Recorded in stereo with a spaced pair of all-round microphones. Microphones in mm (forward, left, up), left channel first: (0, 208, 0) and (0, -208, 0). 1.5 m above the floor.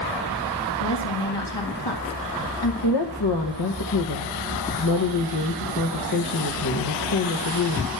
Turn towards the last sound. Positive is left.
turn(degrees=65)  # may be behind; listen again after turning